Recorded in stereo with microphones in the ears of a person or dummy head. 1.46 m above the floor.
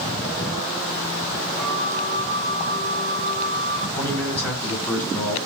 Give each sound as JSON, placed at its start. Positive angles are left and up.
{"t": 1.6, "sound": "a flute", "side_deg": -50, "distance_m": 2.5}
{"t": 4.0, "sound": "a man speaking", "side_deg": 10, "distance_m": 5.0}